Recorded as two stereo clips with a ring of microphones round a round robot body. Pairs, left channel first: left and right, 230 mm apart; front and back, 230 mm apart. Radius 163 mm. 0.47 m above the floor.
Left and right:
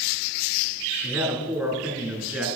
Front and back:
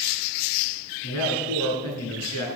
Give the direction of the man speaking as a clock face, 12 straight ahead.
12 o'clock.